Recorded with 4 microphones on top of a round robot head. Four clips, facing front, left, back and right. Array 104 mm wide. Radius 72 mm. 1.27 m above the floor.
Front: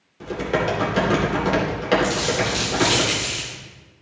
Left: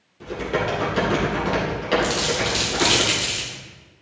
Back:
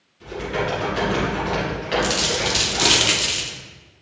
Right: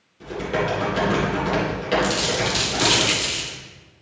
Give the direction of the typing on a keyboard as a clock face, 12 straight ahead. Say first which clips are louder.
Even, front 3 dB; 12 o'clock.